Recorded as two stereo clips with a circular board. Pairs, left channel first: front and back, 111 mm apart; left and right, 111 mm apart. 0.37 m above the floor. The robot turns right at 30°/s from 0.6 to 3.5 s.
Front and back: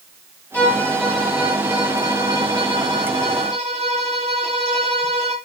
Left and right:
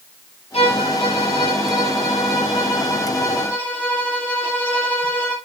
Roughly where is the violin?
Left.